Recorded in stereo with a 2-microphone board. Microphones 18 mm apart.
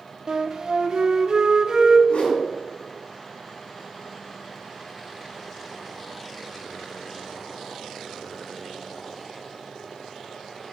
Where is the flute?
45° right (ahead or behind), 0.9 m.